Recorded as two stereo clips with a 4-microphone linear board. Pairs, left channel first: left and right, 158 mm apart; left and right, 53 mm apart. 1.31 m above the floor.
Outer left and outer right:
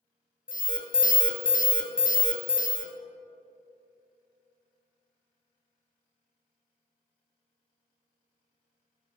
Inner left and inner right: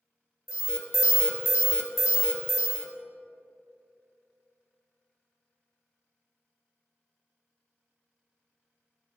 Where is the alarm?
65° left (ahead or behind), 0.7 m.